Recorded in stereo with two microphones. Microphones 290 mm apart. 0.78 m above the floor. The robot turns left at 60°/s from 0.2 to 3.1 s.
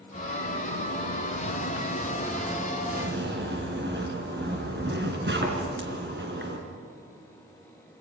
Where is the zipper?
135° left, 3 m; by 6.6 s 40° right, 3 m.